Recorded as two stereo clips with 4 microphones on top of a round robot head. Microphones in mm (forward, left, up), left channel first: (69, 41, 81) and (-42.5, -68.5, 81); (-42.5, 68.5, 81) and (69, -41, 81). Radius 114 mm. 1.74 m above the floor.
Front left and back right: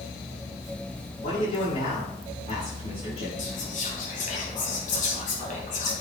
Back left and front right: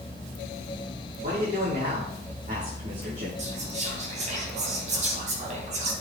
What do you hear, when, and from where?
1.2 s a man speaking: 5° right, 4 m
3.4 s whispering: 5° left, 2.5 m